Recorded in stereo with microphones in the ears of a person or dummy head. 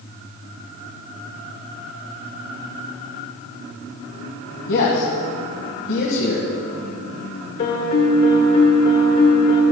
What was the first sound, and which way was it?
A man speaking, 65° left (ahead or behind).